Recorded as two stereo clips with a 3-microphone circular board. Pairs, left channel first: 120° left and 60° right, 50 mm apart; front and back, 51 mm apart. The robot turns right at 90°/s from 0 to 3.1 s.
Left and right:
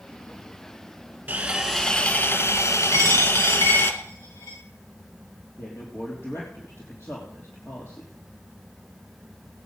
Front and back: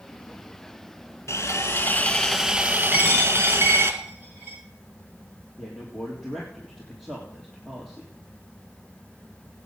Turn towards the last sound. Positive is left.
turn(degrees=90)